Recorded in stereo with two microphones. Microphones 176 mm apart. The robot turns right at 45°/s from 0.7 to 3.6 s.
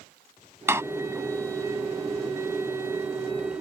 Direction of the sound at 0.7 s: 15° right (ahead or behind).